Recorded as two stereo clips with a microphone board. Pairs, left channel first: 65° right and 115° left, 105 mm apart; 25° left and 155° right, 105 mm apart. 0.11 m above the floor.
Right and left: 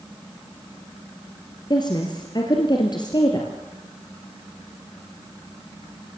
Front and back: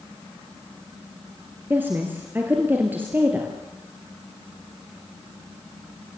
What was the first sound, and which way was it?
A woman speaking, 90° right.